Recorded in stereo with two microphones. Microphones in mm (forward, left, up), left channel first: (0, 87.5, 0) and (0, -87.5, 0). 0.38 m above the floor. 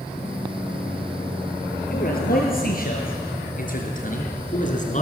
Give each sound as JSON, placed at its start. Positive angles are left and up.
{"t": 1.9, "sound": "a man speaking", "side_deg": 60, "distance_m": 7.0}